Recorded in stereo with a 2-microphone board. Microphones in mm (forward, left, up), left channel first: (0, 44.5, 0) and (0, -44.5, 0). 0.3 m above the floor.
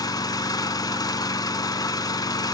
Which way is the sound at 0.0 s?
45° left (ahead or behind).